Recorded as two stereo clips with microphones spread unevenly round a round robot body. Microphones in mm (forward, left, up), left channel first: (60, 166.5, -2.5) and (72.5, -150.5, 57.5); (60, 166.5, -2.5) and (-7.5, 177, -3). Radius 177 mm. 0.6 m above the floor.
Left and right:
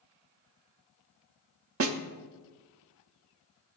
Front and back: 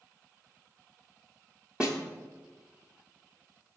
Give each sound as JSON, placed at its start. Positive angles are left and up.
{"t": 1.8, "sound": "a snare drum", "azimuth_deg": -110, "distance_m": 0.7}